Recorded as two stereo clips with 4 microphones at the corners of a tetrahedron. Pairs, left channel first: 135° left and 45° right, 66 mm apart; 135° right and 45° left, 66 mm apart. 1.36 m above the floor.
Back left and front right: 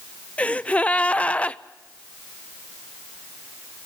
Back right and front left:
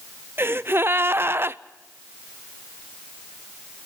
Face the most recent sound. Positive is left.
turn(degrees=80)